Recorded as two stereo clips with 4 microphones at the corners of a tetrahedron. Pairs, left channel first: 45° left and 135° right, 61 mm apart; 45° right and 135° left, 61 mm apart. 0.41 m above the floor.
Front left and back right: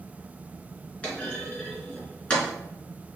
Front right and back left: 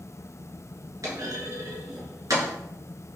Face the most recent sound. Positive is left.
turn(degrees=115)